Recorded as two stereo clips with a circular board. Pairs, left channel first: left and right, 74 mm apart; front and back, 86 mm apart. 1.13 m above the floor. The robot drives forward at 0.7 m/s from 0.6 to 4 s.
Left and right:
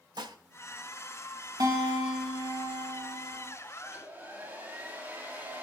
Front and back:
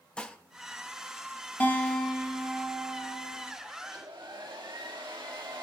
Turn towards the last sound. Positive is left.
turn(degrees=-150)